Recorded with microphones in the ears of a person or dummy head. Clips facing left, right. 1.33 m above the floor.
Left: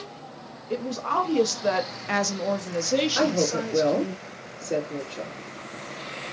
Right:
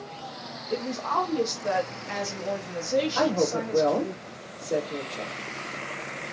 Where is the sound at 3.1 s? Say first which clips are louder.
Left 1 dB; 25° left (ahead or behind), 2.5 m.